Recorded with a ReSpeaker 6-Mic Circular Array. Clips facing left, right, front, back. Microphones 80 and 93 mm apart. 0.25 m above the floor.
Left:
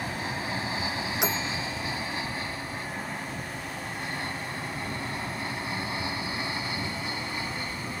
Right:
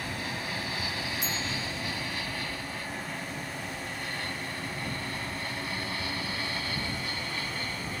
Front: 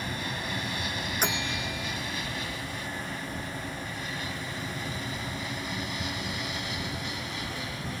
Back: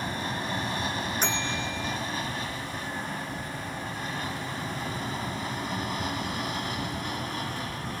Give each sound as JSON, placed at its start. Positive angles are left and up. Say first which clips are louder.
{"t": 0.0, "sound": "an aircraft", "louder": "left 3 dB, back 3 dB", "azimuth_deg": 140}
{"t": 1.2, "sound": "a bell", "louder": "left 4 dB, back 1 dB", "azimuth_deg": 80}